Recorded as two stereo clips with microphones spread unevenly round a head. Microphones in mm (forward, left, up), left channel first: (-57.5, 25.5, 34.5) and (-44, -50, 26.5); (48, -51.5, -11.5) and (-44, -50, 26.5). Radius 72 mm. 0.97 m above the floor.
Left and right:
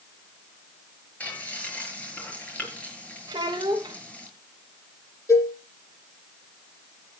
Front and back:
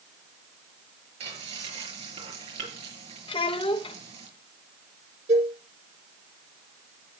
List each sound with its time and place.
1.2 s frying: 170° left, 6 m
3.3 s a child speaking: 25° right, 3 m
5.3 s a cowbell: 150° left, 10 m